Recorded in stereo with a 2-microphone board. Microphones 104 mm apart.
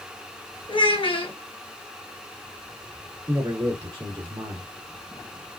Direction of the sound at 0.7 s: 55° left (ahead or behind).